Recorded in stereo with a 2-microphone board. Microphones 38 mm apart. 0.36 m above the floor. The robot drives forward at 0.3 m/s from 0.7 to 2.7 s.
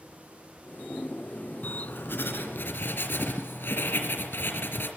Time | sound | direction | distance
1.6 | writing | 70° left (ahead or behind) | 3.5 m